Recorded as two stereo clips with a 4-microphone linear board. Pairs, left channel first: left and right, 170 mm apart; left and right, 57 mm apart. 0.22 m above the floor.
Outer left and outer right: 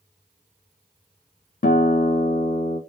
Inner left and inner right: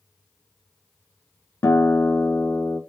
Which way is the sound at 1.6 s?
60° left (ahead or behind).